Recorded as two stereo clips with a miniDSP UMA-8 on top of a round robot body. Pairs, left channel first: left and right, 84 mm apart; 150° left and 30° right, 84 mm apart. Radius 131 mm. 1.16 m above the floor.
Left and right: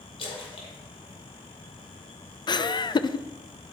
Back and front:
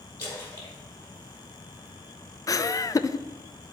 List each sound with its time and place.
0.2 s a splash: 85° left, 2 m
2.5 s laughter: 110° left, 0.6 m